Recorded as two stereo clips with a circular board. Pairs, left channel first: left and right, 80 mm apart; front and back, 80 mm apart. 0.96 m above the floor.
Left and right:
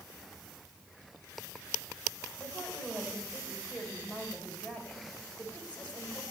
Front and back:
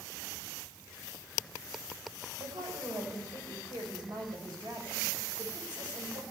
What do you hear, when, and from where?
2.4 s a woman speaking: 165° left, 4 m